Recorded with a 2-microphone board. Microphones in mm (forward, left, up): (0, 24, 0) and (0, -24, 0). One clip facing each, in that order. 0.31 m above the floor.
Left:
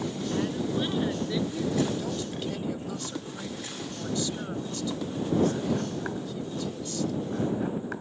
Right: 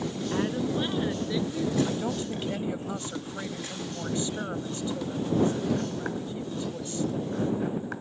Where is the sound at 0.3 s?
25° right (ahead or behind); by 1.8 s 5° left (ahead or behind).